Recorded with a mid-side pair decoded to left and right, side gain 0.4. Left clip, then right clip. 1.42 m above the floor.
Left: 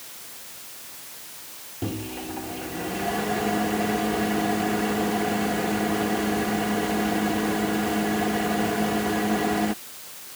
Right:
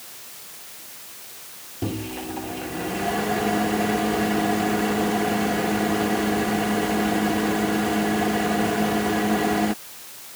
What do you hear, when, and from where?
1.8 s a microwave: 15° right